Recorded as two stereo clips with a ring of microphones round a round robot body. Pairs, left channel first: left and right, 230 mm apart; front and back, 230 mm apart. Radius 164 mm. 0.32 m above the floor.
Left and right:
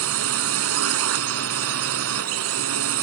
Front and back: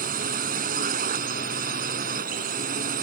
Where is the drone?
120° right.